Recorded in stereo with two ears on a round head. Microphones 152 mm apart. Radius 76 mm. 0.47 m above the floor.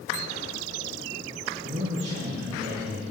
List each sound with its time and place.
1.6 s a man speaking: 70° right (ahead or behind), 4.5 m